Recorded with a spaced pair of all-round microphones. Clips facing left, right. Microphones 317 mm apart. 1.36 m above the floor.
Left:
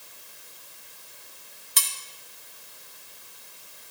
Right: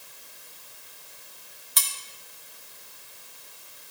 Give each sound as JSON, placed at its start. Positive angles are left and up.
{"t": 1.8, "sound": "cutlery clinking", "side_deg": 35, "distance_m": 2.5}